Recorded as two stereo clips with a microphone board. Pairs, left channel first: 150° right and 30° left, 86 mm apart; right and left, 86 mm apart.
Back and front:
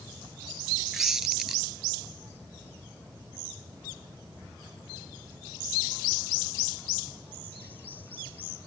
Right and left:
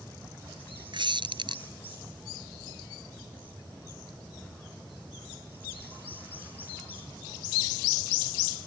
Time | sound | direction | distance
0.9 | a squeak | 115° left | ?